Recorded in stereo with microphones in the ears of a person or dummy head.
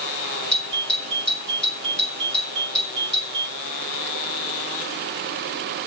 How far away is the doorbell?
About 3.5 m.